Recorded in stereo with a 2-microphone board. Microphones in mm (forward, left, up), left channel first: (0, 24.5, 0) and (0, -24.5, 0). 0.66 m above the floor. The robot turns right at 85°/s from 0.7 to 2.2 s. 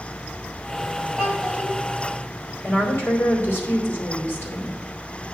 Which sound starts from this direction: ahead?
A child speaking, at 1.2 s.